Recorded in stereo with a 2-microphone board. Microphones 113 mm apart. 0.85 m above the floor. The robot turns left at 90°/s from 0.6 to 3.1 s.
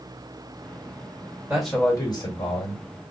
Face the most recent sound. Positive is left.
turn(degrees=50)